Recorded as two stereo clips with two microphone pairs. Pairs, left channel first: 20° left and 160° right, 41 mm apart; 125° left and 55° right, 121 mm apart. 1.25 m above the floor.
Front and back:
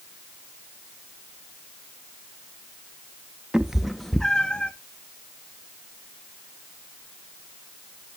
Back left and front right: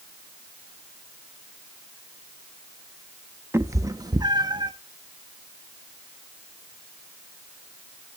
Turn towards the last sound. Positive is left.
turn(degrees=-25)